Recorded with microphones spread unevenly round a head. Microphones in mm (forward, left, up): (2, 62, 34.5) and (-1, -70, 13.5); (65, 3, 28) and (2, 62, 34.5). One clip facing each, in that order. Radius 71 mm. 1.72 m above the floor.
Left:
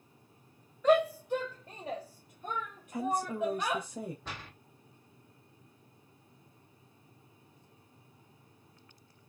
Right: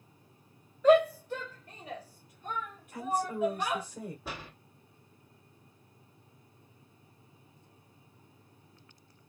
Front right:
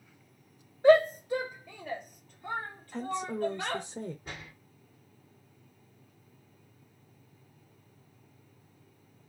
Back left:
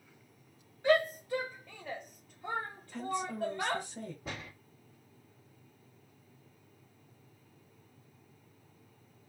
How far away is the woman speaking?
About 0.9 m.